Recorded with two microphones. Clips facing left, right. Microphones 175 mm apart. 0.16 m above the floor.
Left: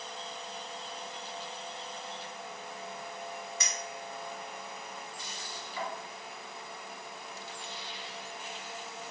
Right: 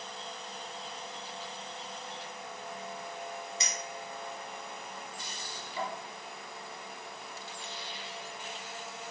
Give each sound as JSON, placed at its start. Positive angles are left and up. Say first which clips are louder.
{"t": 3.6, "sound": "a clink", "louder": "even", "side_deg": -25, "distance_m": 1.3}